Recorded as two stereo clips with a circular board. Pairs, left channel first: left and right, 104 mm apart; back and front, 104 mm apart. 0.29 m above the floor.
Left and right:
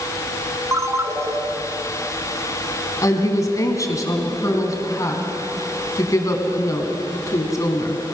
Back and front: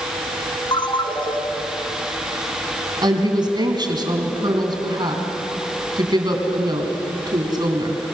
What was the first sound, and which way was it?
A ringtone, 150° right.